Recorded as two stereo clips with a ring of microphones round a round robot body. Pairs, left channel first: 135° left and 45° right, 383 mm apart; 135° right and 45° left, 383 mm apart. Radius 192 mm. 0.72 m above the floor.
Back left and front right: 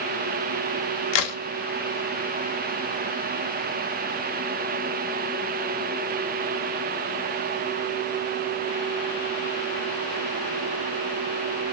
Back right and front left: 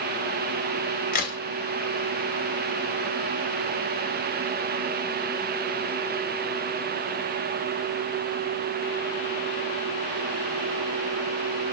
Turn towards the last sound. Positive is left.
turn(degrees=155)